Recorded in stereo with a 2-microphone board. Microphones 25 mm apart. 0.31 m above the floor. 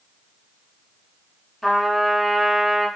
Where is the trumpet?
15° left (ahead or behind), 1.1 m.